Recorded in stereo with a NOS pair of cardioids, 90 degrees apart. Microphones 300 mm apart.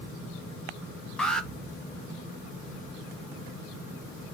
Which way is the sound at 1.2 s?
5° left.